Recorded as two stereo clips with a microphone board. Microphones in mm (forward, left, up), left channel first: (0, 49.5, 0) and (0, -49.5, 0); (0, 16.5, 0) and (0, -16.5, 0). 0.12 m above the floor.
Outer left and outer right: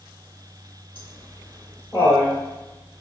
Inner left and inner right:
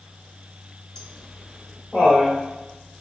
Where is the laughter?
20° left (ahead or behind), 1.3 m.